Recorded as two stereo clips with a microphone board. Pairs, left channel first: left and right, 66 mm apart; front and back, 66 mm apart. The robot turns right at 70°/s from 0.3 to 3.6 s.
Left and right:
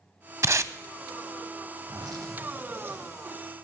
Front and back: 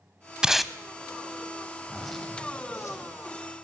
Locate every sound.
0.4 s tape being pulled: 105° right, 0.5 m; by 0.7 s 85° right, 0.5 m
1.8 s a zipper: 110° right, 2.5 m; by 3.1 s 15° right, 2.5 m